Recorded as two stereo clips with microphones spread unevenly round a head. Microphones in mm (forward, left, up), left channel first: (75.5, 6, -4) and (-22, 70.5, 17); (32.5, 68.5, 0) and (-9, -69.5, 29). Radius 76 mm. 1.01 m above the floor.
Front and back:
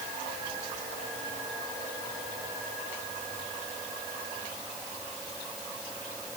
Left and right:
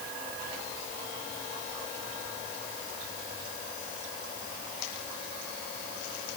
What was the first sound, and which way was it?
Only background noise.